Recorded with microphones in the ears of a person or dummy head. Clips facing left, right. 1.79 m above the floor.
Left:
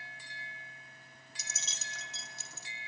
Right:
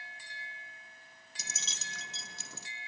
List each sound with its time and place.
1.4 s keys jangling: 65° right (ahead or behind), 1.7 m